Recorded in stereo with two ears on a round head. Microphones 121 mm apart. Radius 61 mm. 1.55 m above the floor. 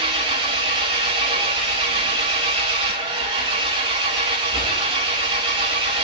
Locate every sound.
0.0 s an engine running: 45° right (ahead or behind), 2 m